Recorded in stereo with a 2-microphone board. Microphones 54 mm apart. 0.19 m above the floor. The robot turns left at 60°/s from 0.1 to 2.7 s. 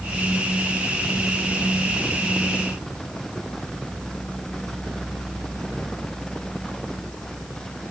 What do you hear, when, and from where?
Only background noise.